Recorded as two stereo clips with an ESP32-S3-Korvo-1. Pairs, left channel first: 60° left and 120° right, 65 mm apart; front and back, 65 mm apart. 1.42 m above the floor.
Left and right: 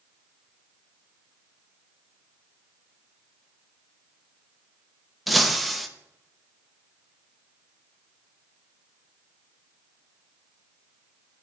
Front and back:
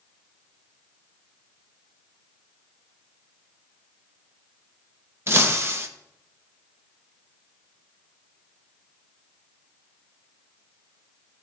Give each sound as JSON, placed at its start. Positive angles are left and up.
{"t": 5.3, "sound": "breaking glass", "azimuth_deg": 150, "distance_m": 0.8}